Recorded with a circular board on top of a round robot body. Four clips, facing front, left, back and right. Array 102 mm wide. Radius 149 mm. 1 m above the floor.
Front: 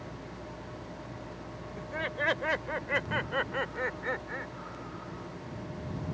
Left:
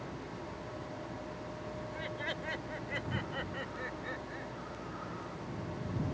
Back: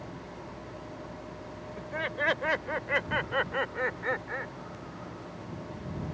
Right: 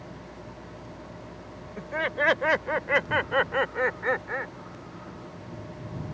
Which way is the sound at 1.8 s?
95° right.